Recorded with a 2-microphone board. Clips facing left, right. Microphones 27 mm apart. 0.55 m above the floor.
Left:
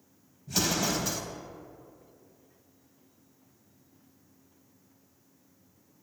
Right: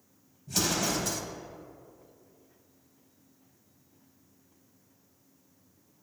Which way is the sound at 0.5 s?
5° left (ahead or behind).